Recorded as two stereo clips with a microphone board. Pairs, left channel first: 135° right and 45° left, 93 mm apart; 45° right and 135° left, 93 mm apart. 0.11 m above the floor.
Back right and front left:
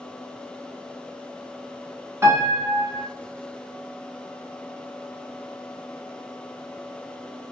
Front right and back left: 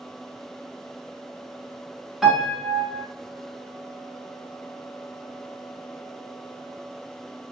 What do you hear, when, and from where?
2.2 s a piano: 55° left, 1.0 m